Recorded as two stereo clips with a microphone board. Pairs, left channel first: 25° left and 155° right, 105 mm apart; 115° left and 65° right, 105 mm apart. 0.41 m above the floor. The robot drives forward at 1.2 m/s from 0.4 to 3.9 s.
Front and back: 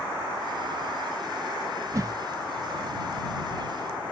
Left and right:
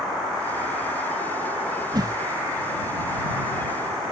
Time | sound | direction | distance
1.9 | a whoosh | 105° right | ?